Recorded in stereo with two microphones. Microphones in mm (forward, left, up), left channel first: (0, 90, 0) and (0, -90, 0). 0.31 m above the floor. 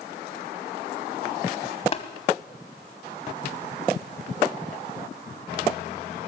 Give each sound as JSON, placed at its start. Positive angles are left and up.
{"t": 1.9, "sound": "tapping", "side_deg": 35, "distance_m": 1.0}